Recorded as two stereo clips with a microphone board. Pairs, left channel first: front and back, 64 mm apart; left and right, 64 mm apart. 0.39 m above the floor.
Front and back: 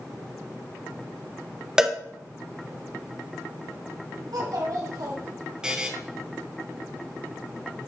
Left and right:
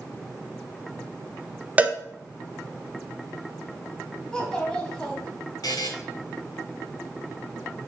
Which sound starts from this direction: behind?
A child speaking, at 4.3 s.